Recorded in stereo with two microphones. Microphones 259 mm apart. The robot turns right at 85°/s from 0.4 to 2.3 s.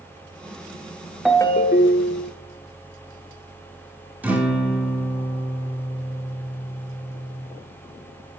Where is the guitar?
5° right (ahead or behind), 1.4 m.